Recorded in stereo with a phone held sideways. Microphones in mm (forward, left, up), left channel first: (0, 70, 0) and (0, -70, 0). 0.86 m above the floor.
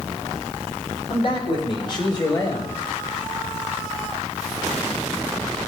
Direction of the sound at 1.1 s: 45° left (ahead or behind).